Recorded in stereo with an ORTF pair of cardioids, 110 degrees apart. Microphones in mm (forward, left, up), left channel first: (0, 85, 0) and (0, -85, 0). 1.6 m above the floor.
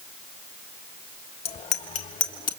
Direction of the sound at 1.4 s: 40° left.